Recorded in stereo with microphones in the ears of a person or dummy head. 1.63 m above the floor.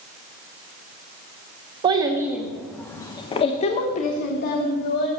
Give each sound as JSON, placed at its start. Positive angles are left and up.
{"t": 1.8, "sound": "a child speaking", "side_deg": -25, "distance_m": 1.1}